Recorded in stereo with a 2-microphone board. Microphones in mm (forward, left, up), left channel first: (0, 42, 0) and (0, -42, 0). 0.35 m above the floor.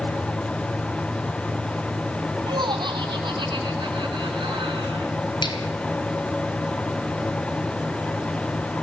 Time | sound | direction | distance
2.5 | laughter | 65° right (ahead or behind) | 3 m
5.4 | a finger snap | 70° left (ahead or behind) | 4.5 m